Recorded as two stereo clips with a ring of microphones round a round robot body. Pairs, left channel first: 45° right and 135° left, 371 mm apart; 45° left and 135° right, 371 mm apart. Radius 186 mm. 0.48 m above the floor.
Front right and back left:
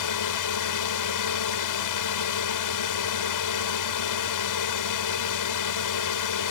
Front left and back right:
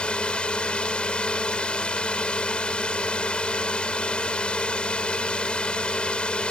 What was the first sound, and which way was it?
A drone, 40° right.